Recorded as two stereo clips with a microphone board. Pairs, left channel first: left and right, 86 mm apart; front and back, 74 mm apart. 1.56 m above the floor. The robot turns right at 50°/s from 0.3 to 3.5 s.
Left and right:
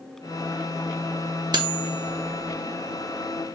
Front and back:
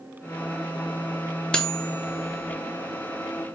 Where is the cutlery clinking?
80° right, 1.0 m; by 2.5 s 30° right, 1.0 m.